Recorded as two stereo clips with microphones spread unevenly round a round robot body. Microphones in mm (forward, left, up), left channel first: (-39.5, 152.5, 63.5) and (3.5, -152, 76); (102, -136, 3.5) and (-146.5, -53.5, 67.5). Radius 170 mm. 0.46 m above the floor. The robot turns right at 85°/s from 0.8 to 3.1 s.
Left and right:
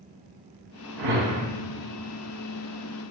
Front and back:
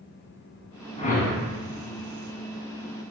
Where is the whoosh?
90° right, 1.6 m; by 1.5 s 50° right, 1.6 m.